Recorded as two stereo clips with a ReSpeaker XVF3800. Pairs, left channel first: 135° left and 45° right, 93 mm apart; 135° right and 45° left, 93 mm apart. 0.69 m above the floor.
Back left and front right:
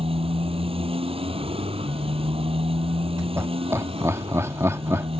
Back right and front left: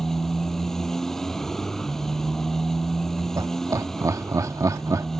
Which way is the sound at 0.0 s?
50° right.